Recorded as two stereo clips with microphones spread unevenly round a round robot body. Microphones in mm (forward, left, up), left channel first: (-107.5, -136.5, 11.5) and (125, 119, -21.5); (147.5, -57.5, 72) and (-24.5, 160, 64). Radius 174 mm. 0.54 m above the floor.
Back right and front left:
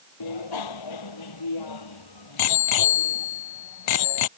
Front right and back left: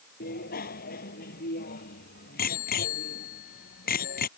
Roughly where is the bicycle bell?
Behind right.